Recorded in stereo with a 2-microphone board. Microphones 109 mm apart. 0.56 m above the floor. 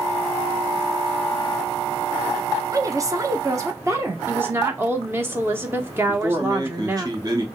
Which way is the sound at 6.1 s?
35° right (ahead or behind).